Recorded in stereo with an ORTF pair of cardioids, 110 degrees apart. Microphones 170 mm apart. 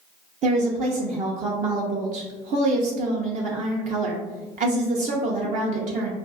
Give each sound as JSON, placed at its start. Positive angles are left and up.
{"t": 0.4, "sound": "a woman speaking", "azimuth_deg": -45, "distance_m": 0.7}